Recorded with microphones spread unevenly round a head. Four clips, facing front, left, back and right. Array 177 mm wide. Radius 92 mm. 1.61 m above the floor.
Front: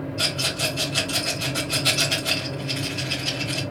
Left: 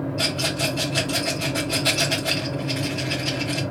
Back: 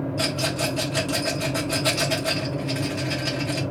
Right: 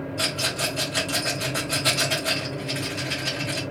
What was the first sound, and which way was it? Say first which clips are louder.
A rattle: left 3 dB, back 3 dB; 150° right.